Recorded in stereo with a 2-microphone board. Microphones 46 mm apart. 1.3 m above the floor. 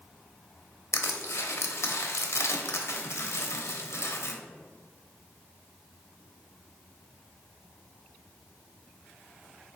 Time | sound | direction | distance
0.9 | crushing | 80° left | 0.6 m